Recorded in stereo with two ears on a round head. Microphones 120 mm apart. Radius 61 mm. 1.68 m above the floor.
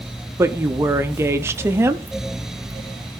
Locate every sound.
0.4 s a woman speaking: 20° right (ahead or behind), 0.7 m